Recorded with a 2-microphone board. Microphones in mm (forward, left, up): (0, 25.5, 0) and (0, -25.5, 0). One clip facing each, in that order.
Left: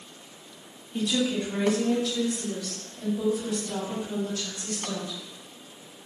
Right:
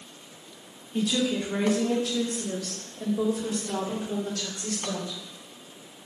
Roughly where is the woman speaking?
Centre.